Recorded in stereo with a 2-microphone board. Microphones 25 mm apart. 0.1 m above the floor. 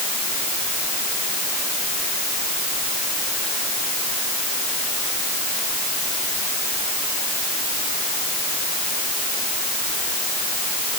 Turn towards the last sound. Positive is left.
No sound to turn to.